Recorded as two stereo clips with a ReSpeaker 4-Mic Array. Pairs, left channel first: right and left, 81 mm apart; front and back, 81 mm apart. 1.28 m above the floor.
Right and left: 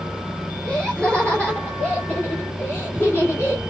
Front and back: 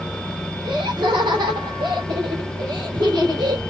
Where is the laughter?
175° right, 2.5 m; by 3.6 s 150° right, 3.5 m.